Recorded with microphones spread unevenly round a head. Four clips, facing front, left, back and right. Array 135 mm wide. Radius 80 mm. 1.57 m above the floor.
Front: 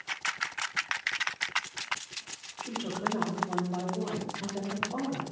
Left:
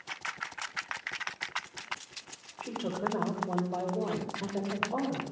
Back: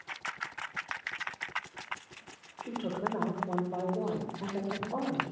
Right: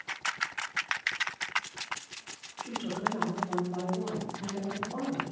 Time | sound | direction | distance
2.6 | a woman speaking | 120° left | 3 m